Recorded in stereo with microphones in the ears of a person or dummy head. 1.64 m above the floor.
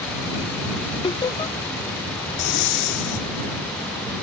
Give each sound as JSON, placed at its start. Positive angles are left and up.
{"t": 1.0, "sound": "laughter", "side_deg": 20}
{"t": 2.4, "sound": "breathing", "side_deg": 55}